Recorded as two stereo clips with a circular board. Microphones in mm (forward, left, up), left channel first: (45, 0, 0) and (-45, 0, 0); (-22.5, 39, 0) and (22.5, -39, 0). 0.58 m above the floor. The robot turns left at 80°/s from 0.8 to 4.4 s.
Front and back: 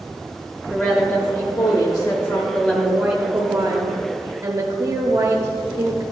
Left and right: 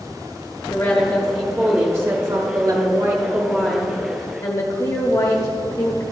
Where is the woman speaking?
70° left, 1.0 m; by 6.0 s 140° left, 1.0 m.